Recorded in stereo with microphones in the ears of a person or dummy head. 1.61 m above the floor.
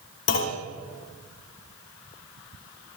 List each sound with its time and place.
0.3 s a clunk: 60° left (ahead or behind), 2 m